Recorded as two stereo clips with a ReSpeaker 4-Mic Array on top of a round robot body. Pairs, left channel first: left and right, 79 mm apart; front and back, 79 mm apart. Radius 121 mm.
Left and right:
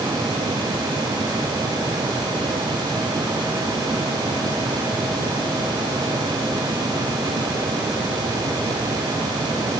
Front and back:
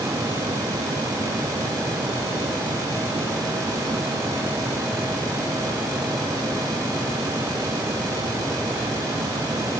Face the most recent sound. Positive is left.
No sound to turn to.